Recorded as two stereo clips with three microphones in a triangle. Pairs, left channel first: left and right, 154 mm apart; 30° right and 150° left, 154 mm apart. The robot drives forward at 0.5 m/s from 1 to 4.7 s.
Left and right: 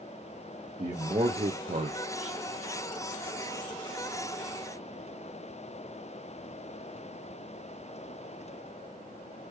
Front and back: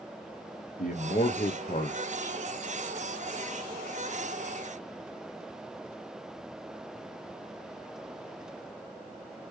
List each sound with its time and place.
0.8 s a man speaking: 35° right, 0.8 m; by 2.4 s 100° right, 0.5 m